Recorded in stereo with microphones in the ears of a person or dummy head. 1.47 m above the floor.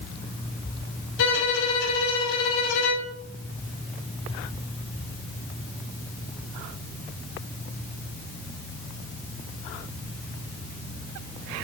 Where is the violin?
70° left (ahead or behind), 3.5 m.